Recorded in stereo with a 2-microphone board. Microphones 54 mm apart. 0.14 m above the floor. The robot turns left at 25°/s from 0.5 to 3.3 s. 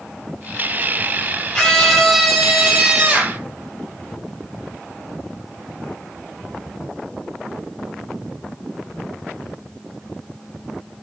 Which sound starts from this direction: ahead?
A scream, at 1.5 s.